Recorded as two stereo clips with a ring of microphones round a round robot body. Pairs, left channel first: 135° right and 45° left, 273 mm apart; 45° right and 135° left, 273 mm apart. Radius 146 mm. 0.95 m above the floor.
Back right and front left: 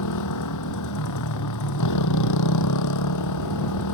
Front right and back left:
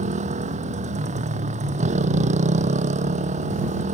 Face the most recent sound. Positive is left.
turn(degrees=-160)